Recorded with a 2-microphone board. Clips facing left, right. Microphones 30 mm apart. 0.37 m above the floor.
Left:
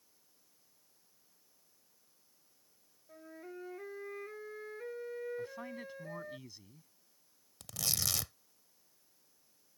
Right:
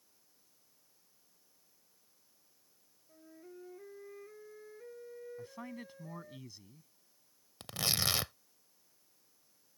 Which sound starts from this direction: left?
A flute, at 3.1 s.